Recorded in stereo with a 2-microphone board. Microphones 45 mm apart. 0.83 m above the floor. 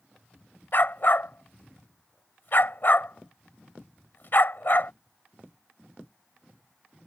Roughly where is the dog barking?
Left.